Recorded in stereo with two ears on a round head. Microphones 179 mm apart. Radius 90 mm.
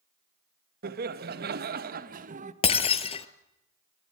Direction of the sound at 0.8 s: 50° right (ahead or behind).